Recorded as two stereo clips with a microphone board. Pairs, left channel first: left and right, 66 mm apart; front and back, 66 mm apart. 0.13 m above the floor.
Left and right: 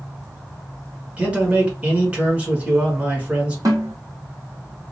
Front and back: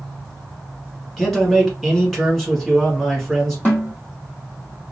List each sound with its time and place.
1.2 s a man speaking: 80° right, 1.2 m
3.6 s a snare drum: 60° right, 1.8 m